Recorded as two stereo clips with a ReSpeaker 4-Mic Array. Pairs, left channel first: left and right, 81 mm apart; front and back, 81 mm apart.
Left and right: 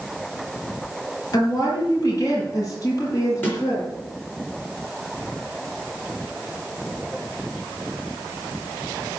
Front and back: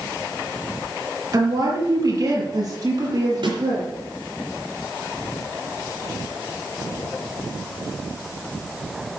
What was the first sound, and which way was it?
A woman speaking, 135° left.